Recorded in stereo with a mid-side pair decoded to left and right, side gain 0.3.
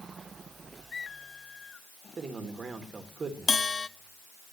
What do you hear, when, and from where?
2.2 s a man speaking: 60° right, 3.5 m
3.5 s a bell: 45° left, 1.0 m